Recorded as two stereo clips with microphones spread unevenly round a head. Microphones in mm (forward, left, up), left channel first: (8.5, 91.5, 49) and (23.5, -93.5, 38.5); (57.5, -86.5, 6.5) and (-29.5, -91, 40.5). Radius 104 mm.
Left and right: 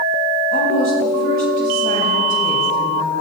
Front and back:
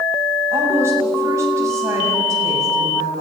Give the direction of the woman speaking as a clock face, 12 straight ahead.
4 o'clock.